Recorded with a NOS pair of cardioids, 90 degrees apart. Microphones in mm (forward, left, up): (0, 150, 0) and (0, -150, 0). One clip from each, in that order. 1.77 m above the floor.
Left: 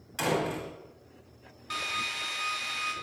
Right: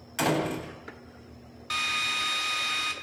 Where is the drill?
35° right, 2.5 m.